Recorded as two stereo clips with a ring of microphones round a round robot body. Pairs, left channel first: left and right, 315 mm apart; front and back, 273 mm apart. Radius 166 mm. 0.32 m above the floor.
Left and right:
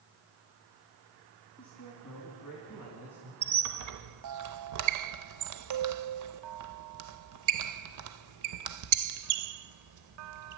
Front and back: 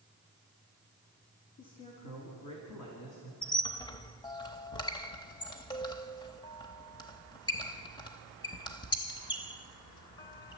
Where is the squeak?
75° right, 0.6 m.